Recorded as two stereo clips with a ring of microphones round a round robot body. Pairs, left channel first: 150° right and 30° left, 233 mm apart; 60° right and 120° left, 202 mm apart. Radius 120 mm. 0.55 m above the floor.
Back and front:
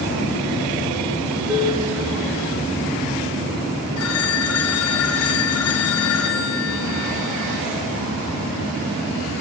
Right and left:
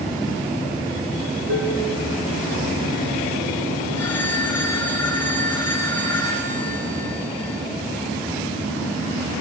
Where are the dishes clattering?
105° left, 4.5 m.